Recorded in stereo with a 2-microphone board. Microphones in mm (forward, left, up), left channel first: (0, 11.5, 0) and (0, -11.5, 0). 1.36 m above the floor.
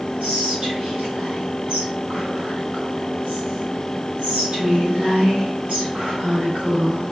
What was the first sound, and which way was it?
Whispering, 75° right (ahead or behind).